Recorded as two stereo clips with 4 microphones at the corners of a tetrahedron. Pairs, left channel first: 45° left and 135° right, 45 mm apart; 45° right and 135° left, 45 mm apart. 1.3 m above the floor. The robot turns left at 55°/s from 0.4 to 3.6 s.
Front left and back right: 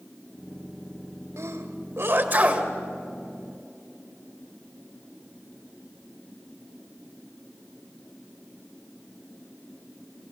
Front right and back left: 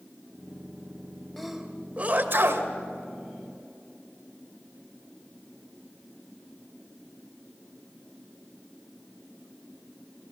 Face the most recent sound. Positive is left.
turn(degrees=105)